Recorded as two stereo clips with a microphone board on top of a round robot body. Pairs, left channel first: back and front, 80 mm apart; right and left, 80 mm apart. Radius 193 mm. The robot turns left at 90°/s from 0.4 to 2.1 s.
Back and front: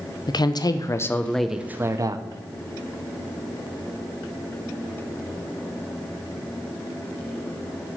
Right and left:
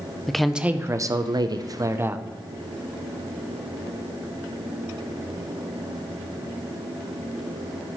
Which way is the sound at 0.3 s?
175° right.